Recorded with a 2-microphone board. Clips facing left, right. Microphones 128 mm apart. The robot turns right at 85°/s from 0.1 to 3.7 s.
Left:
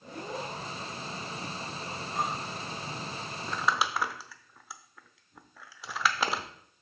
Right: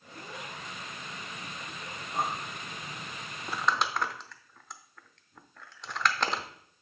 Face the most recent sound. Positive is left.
turn(degrees=5)  # may be behind; listen again after turning